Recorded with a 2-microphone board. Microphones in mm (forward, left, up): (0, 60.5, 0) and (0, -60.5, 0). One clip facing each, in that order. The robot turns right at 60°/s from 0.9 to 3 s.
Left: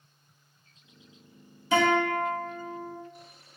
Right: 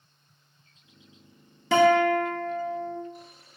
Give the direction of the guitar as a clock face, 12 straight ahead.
3 o'clock.